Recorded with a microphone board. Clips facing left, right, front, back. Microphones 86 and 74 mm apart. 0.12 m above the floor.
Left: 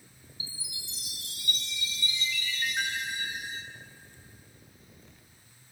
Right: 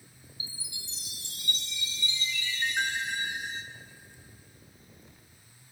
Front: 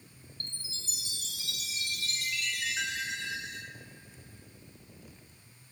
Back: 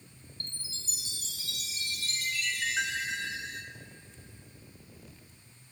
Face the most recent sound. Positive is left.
turn(degrees=-140)